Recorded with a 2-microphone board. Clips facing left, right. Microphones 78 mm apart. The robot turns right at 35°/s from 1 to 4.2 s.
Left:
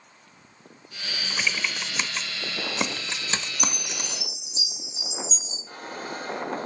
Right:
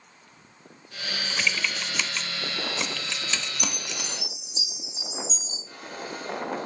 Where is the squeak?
45° left (ahead or behind), 6.5 m.